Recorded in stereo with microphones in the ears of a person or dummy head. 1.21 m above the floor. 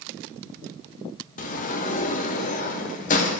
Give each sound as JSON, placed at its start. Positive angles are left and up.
{"t": 1.4, "sound": "a sliding door", "side_deg": 35, "distance_m": 0.6}